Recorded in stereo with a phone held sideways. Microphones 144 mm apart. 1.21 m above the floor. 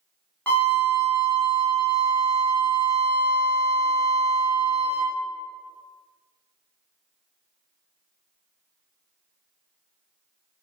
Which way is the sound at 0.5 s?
10° left (ahead or behind).